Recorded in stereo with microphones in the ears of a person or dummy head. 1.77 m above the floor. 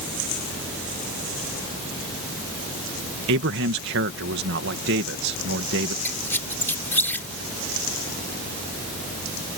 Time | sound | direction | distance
3.3 | a man speaking | 65° right (ahead or behind) | ?
6.0 | a squeak | 10° left (ahead or behind) | ?